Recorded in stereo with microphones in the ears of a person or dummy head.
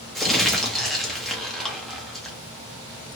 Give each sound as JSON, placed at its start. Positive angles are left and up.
{"t": 0.1, "sound": "crumpling", "side_deg": 5, "distance_m": 0.6}